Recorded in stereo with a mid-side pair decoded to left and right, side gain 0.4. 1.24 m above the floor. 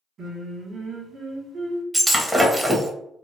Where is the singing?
60° right, 1.2 m.